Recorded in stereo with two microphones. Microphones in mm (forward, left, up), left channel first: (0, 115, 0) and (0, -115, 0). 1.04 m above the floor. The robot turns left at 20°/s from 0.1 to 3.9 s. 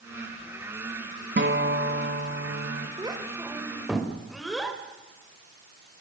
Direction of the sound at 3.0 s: 20° right (ahead or behind).